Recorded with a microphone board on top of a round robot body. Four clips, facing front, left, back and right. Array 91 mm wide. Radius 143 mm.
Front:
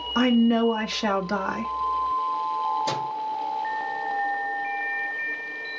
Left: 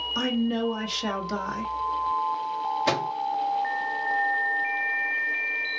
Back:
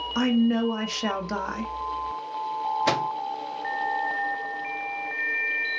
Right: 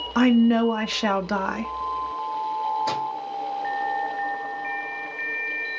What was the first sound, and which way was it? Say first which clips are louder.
A woman speaking: right 9 dB, front 3 dB; 70° right.